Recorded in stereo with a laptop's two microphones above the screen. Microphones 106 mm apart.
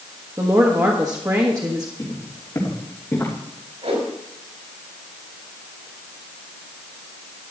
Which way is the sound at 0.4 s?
30° right (ahead or behind).